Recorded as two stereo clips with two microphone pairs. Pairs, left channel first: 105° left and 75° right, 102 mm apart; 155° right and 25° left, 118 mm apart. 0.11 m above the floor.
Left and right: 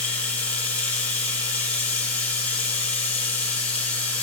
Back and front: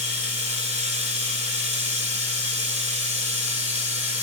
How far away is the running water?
About 1.0 m.